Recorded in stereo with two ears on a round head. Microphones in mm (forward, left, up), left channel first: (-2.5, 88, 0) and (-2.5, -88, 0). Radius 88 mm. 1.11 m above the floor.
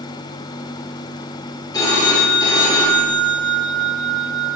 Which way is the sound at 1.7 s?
20° left (ahead or behind).